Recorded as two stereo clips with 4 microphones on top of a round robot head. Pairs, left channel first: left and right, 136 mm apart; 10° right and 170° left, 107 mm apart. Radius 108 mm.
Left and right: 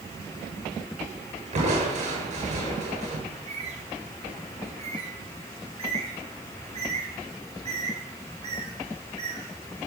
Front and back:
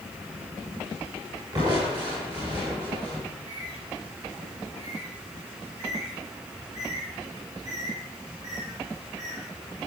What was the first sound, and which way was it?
Crushing, 130° right.